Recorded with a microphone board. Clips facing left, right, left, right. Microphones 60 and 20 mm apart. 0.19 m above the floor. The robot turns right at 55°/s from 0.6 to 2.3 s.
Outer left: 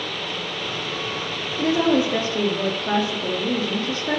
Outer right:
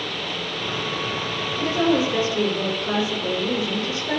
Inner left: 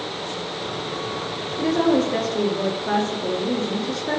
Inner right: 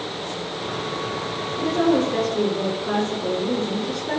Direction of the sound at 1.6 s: 95° left.